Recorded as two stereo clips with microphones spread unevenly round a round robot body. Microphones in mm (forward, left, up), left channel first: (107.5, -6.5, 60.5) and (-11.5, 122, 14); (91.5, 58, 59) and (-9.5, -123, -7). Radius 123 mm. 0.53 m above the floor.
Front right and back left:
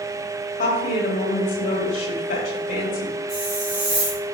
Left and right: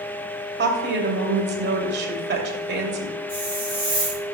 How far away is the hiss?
About 3.5 m.